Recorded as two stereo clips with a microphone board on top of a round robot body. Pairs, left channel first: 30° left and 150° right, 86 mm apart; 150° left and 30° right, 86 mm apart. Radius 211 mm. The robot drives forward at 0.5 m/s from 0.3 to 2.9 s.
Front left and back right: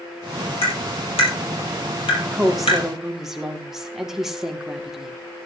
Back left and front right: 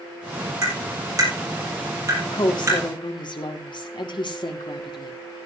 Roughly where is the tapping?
Ahead.